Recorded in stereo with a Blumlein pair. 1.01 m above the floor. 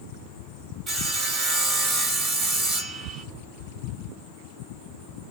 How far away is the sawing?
About 1.1 m.